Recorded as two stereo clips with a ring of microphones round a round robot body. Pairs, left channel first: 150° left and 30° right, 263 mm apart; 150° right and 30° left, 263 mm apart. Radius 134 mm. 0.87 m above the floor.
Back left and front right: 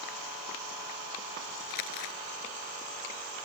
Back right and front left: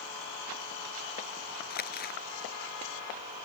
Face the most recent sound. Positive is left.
turn(degrees=155)